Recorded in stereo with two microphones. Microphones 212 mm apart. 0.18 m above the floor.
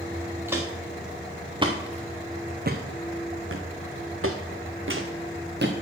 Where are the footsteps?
10° right (ahead or behind), 1.8 m; by 5.7 s 55° right (ahead or behind), 1.6 m.